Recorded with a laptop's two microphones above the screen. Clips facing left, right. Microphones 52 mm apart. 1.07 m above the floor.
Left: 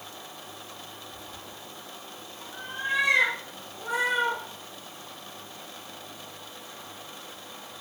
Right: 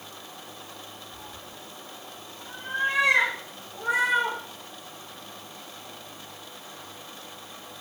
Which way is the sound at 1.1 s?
65° right (ahead or behind).